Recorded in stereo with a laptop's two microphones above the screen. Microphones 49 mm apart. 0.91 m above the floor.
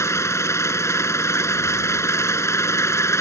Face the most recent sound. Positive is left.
turn(degrees=70)  # may be behind; listen again after turning